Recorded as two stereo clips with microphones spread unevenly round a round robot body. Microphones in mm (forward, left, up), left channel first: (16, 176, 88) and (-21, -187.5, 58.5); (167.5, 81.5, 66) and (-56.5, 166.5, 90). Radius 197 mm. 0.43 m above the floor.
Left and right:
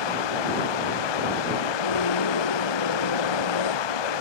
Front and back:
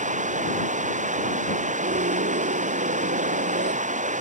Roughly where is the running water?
Left.